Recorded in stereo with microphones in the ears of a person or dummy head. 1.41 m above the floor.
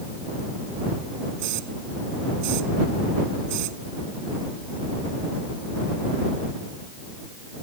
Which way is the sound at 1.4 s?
55° right (ahead or behind).